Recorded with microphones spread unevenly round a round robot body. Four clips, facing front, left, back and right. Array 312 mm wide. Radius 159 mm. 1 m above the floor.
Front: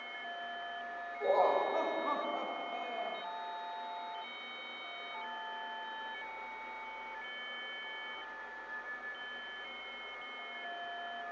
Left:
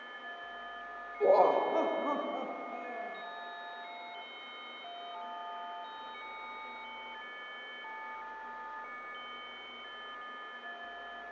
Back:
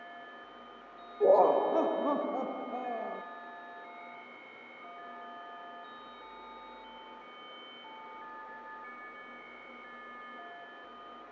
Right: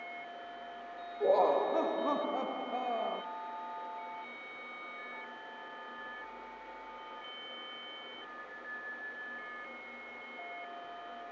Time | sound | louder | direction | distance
1.2 | laughter | left 2 dB, back 6 dB | 170° left | 1.6 m